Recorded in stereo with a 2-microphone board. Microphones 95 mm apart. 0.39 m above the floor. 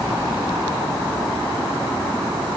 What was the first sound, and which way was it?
Only background noise.